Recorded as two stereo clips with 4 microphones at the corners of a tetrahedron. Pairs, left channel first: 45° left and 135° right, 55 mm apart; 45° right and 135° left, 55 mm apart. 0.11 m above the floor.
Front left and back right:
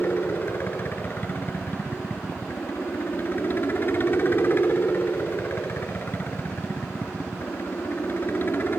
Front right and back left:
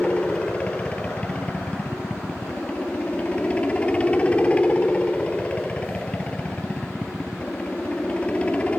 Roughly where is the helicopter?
Ahead.